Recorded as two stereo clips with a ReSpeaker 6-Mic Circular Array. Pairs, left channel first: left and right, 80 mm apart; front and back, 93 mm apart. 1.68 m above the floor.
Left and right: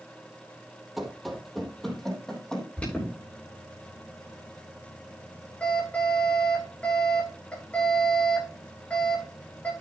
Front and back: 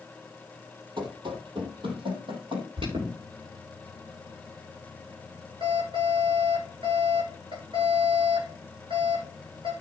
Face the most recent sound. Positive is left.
turn(degrees=165)